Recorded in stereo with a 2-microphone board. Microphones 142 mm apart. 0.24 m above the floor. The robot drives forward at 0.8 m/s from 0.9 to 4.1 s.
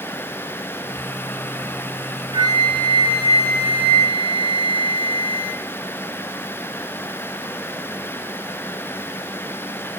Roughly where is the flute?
Right.